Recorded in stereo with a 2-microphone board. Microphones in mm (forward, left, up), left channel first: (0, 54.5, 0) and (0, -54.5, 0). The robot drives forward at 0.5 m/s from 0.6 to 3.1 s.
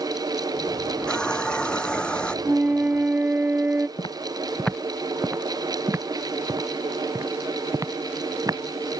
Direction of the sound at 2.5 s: 15° right (ahead or behind).